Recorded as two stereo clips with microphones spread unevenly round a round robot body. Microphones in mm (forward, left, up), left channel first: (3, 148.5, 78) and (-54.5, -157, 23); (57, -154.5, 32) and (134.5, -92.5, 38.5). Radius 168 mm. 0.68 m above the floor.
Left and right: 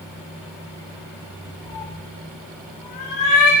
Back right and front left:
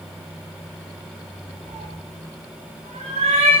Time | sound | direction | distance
1.7 | a cat meowing | 55° left | 5.5 m